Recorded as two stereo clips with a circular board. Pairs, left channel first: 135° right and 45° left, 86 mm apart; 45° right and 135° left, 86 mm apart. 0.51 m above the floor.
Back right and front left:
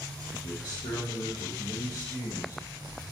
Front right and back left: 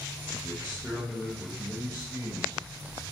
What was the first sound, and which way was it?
A man speaking, 130° right.